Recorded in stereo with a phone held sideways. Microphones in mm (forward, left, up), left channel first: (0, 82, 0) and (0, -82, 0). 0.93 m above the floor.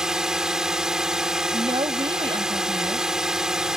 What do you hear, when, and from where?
0.0 s a drone: 5° right (ahead or behind)
1.5 s a woman speaking: 35° right (ahead or behind)